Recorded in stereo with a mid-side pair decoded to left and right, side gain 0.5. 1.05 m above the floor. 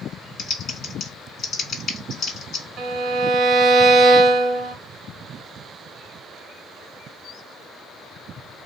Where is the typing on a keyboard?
55° left, 1.0 m.